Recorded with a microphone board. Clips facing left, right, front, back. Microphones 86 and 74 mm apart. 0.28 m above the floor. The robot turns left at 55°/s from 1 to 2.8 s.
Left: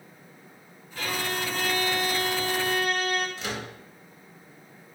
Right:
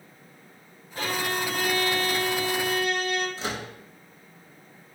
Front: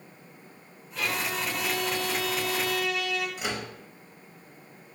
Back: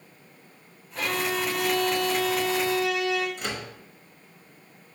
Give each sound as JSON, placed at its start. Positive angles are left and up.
{"t": 0.9, "sound": "a violin", "azimuth_deg": -140, "distance_m": 0.8}
{"t": 3.4, "sound": "a microwave", "azimuth_deg": -80, "distance_m": 0.8}